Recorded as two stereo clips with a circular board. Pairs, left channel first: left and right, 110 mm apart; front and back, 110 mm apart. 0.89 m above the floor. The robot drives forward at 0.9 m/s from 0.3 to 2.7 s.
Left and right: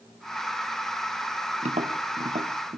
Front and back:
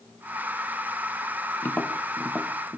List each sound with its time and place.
1.6 s tapping: 70° right, 1.8 m; by 2.8 s 105° right, 1.7 m